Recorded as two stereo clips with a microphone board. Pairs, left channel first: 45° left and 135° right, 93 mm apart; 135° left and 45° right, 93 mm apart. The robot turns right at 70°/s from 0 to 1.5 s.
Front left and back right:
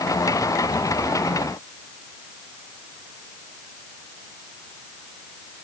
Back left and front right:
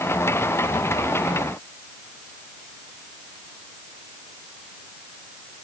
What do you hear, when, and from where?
Only background noise.